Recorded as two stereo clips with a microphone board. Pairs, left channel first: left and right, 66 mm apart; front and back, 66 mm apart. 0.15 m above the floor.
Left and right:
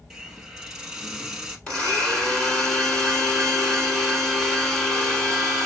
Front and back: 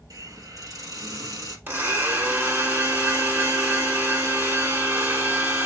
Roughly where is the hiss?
Behind.